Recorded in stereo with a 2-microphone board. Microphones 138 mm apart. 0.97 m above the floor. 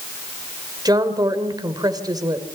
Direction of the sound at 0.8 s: 30° right (ahead or behind).